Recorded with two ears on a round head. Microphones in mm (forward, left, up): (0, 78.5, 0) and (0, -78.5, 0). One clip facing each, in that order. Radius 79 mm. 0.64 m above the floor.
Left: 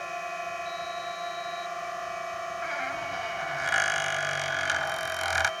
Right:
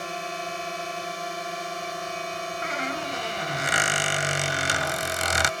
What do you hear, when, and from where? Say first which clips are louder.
0.0 s a drone: right 2 dB; 50° right (ahead or behind)
2.6 s a squeak: right 3 dB; 60° right (ahead or behind)